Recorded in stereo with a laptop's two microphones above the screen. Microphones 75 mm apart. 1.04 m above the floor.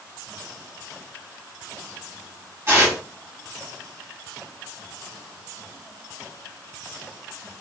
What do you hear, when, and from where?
2.7 s tearing paper: 35° right (ahead or behind), 2.5 m